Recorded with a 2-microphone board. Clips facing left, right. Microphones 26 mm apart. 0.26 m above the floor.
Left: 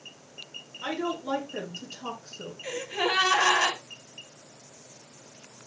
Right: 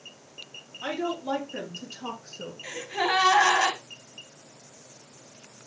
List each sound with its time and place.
0.8 s a woman speaking: centre (ahead or behind), 3.5 m
2.6 s a gasp: 10° right (ahead or behind), 4 m